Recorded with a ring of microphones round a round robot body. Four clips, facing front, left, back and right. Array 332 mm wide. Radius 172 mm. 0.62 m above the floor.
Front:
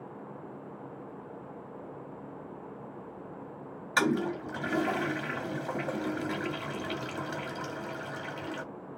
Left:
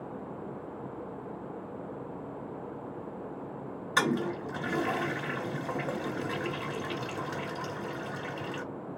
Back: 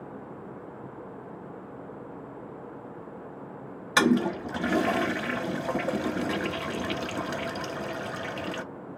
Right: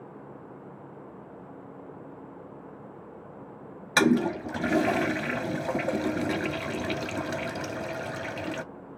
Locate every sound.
4.0 s a toilet flushing: 130° right, 0.5 m